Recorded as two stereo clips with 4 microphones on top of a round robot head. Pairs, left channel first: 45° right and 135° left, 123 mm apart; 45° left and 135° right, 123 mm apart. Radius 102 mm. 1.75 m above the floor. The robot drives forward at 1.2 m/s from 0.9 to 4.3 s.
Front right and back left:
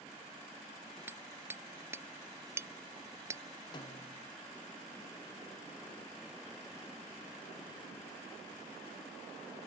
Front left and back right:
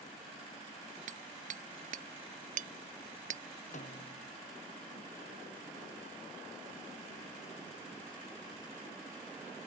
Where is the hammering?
150° right; by 3.4 s 155° right.